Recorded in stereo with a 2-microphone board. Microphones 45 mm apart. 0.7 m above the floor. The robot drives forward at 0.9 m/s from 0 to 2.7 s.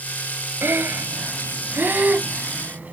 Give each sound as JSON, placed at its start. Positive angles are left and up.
{"t": 0.6, "sound": "breathing", "side_deg": -60}